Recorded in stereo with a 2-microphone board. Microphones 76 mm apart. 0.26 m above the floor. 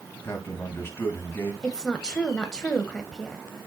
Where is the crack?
No crack in this recording.